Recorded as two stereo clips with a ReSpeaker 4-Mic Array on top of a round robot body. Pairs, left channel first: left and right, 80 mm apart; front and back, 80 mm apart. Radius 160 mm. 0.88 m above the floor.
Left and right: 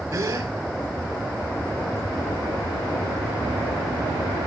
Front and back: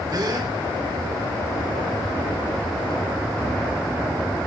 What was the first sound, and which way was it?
A gasp, 145° right.